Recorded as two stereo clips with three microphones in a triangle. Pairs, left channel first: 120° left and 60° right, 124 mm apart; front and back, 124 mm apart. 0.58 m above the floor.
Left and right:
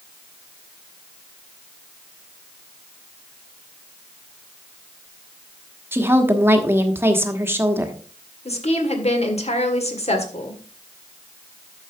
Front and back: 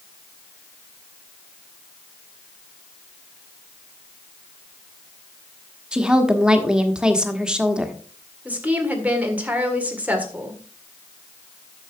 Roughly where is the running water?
No running water in this recording.